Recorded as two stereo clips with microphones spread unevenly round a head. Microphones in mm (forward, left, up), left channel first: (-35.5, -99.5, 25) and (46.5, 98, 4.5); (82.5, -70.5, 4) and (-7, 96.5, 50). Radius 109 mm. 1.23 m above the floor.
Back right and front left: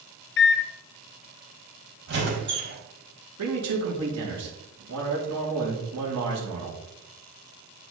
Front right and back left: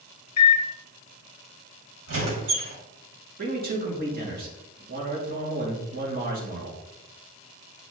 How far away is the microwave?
About 0.6 m.